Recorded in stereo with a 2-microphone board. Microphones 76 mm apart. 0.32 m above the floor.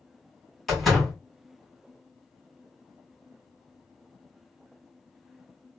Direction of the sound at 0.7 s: 5° left (ahead or behind).